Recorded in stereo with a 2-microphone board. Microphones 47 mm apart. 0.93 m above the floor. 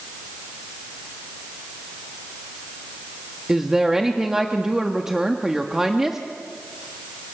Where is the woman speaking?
10° right (ahead or behind), 1.3 m.